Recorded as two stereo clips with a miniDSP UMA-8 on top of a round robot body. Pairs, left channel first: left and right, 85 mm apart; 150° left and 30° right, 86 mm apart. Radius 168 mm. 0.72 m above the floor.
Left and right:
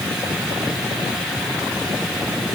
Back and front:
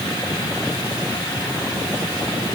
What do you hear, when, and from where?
Only background noise.